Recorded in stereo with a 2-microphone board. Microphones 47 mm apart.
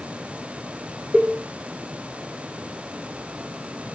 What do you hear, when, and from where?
1.1 s a cowbell: 30° right (ahead or behind), 2 m